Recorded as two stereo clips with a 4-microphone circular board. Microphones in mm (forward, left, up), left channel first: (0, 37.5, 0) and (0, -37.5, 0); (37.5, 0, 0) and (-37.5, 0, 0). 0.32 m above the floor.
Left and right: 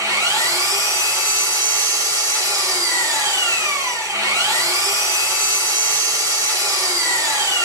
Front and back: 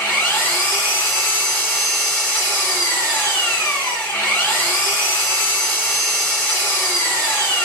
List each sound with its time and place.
0.0 s an engine running: 60° right, 1.8 m